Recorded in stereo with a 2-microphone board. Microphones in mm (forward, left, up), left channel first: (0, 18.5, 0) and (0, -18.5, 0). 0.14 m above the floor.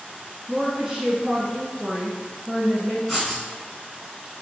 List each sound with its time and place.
0.5 s a woman speaking: 15° right (ahead or behind), 1.1 m
3.1 s writing: 5° right (ahead or behind), 1.2 m